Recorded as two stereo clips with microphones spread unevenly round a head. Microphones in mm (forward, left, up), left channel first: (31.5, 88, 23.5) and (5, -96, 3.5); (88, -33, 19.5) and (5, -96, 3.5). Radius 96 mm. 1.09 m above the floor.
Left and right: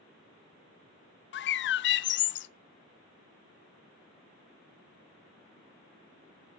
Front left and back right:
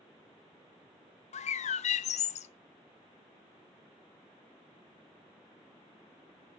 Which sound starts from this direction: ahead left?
A bird, at 1.3 s.